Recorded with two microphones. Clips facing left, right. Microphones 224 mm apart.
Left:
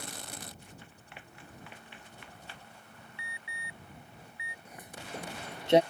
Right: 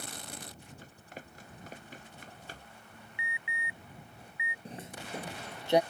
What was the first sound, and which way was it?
Running footsteps, 40° right (ahead or behind).